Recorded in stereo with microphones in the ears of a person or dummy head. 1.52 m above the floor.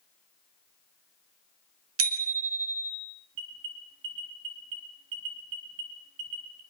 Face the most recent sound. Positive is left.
turn(degrees=-80)